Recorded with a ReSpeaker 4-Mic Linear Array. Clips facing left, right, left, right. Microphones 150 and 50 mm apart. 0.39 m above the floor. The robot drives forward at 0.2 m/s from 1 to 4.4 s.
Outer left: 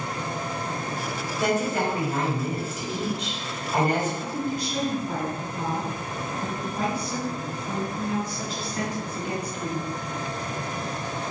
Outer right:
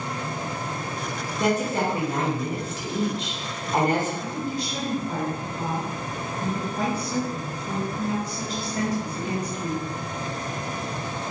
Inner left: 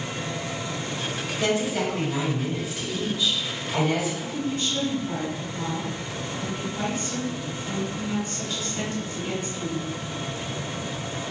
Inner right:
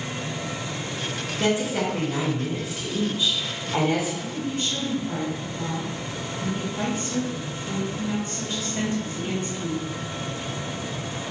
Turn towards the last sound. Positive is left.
turn(degrees=-40)  # may be behind; listen again after turning